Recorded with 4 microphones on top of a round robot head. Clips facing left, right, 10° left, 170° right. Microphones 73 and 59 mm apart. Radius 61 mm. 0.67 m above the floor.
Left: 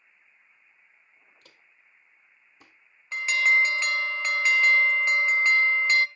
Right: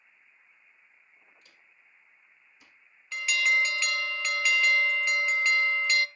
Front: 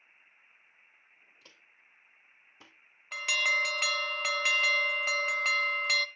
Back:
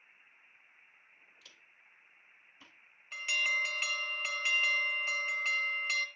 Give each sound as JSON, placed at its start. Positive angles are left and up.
{"t": 1.4, "sound": "footsteps", "azimuth_deg": 65, "distance_m": 1.1}
{"t": 3.1, "sound": "an alarm", "azimuth_deg": 25, "distance_m": 0.6}